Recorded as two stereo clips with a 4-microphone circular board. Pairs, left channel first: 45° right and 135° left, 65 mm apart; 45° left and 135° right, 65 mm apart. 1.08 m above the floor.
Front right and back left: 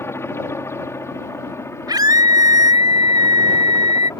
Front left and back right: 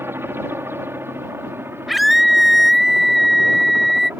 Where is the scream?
135° left.